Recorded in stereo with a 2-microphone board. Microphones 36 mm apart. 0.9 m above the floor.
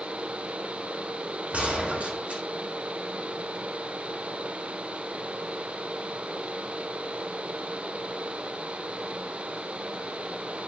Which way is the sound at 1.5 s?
40° right (ahead or behind).